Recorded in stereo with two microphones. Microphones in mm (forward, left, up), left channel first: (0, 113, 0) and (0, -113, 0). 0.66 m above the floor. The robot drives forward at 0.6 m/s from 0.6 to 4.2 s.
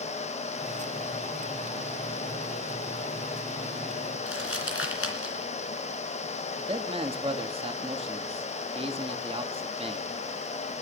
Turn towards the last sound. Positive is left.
turn(degrees=-25)  # may be behind; listen again after turning